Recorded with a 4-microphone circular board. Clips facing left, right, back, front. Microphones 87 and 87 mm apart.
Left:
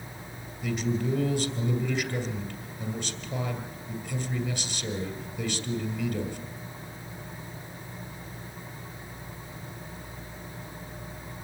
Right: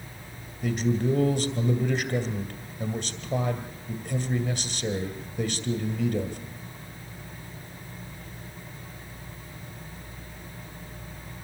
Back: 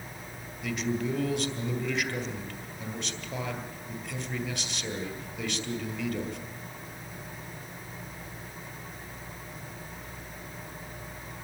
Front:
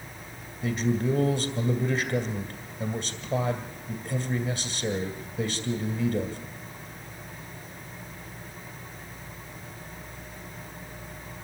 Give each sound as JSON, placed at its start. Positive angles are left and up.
{"t": 0.6, "sound": "a man speaking", "azimuth_deg": -55, "distance_m": 2.5}